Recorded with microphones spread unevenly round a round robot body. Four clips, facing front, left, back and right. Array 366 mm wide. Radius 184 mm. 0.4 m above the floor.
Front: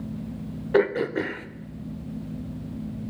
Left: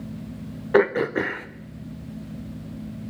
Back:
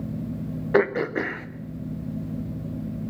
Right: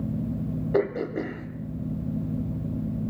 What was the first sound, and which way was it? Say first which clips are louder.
Throat clearing: left 7 dB, even; 105° left.